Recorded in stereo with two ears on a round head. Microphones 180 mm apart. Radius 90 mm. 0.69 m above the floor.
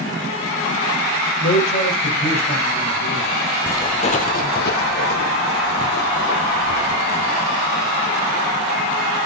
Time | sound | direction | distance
1.4 | a man speaking | 45° left (ahead or behind) | 2.5 m
3.7 | footsteps | 10° left (ahead or behind) | 0.8 m